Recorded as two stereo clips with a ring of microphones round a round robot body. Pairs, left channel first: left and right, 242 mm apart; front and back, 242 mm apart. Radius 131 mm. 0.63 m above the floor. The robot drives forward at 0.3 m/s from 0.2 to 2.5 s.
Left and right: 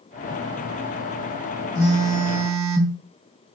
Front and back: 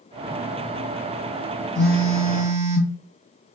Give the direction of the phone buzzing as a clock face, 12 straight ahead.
3 o'clock.